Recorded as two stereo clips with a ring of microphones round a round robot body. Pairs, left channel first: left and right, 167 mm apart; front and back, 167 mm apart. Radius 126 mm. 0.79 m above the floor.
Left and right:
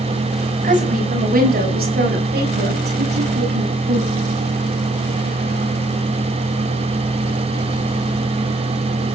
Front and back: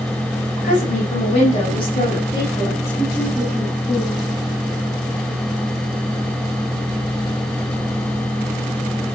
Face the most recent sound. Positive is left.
turn(degrees=-90)